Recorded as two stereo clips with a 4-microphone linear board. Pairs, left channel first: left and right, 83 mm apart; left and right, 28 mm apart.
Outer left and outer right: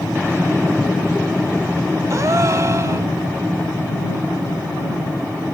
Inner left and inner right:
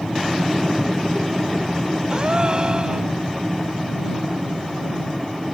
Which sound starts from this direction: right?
A gasp, at 2.1 s.